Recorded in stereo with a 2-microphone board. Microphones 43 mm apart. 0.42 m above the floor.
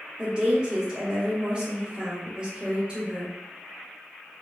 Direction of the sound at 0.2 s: 20° right (ahead or behind).